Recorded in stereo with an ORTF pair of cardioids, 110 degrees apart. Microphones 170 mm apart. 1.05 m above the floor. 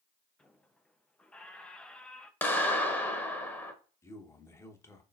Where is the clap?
15° left, 1.1 m.